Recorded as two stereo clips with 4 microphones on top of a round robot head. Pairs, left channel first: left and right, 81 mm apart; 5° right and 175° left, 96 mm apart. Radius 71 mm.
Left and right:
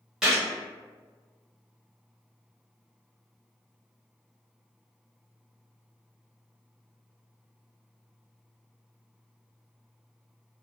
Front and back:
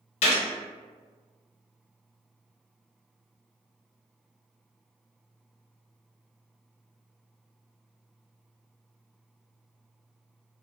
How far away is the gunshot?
About 0.6 m.